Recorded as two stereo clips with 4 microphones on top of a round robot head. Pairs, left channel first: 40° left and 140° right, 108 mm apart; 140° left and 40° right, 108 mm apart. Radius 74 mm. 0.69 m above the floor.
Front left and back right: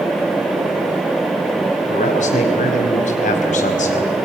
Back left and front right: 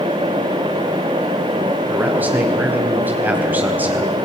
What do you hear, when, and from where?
1.9 s a man speaking: 35° left, 4 m